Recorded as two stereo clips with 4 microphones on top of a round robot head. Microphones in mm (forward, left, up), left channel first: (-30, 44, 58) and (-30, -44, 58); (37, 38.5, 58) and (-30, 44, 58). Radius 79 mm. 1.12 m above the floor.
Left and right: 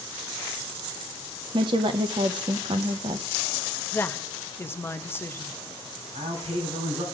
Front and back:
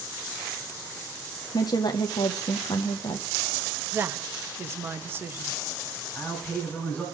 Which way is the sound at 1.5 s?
45° right.